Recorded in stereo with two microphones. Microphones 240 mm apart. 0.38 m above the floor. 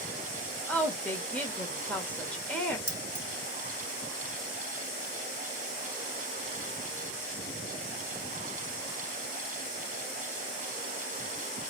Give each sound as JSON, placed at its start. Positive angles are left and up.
{"t": 0.7, "sound": "a woman speaking", "side_deg": 5, "distance_m": 1.5}
{"t": 2.9, "sound": "keys jangling", "side_deg": 70, "distance_m": 1.6}